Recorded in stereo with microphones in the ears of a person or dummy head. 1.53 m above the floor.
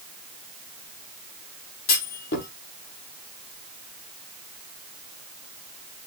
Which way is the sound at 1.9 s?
55° left (ahead or behind).